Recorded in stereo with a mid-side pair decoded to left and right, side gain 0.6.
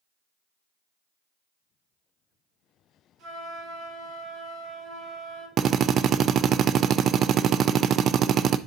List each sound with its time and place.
3.2 s a flute: 65° right, 7 m
5.6 s a drill: 50° right, 0.5 m